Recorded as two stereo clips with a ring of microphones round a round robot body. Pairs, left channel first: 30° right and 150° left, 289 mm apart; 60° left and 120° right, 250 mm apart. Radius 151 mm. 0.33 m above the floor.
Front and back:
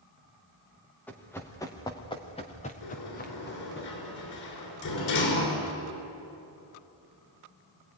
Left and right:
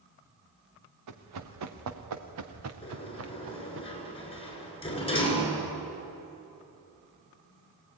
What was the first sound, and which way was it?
Running footsteps, 115° right.